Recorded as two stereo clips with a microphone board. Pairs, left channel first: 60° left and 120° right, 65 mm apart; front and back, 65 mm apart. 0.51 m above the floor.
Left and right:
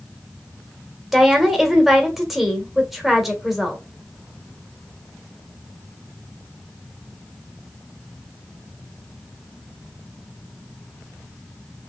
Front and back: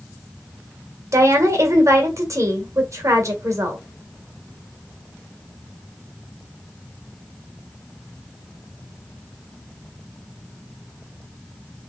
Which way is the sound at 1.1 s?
155° left.